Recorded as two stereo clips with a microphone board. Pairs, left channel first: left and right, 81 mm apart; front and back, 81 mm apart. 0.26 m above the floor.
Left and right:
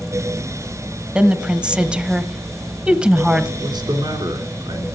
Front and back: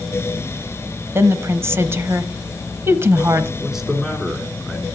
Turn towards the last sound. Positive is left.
turn(degrees=-95)